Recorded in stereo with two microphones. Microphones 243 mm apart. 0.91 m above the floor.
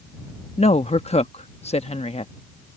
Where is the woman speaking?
25° left (ahead or behind).